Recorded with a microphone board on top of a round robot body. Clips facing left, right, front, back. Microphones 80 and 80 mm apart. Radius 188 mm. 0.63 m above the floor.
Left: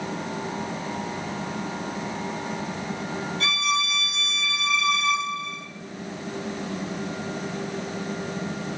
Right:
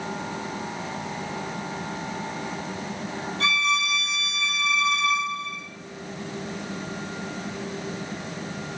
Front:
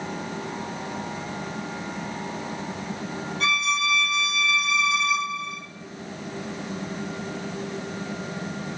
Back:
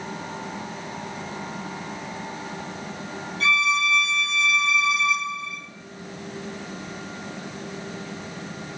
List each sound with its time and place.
3.4 s a violin: 45° right, 1.7 m